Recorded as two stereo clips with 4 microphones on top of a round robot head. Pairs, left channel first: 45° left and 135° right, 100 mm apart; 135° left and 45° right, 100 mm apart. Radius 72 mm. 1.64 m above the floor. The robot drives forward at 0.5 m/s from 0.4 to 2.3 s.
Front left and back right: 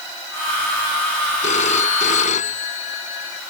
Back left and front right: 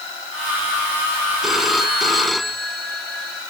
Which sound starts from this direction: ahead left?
A phone ringing, at 1.4 s.